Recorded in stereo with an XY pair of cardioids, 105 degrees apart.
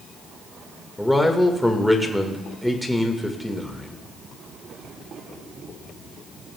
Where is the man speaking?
5° left, 1.5 m.